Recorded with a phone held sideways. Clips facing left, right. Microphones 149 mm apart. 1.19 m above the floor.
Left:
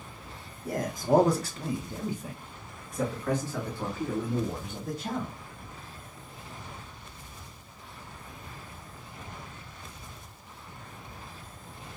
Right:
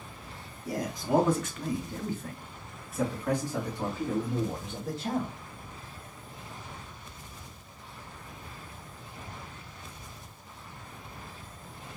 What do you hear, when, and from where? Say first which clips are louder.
0.7 s a man speaking: left 3 dB; 55° left (ahead or behind), 1.2 m; by 5.3 s 35° right (ahead or behind), 2.5 m